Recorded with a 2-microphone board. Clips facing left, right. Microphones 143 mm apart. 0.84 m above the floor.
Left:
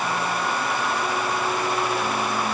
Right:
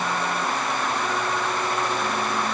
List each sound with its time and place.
Only background noise.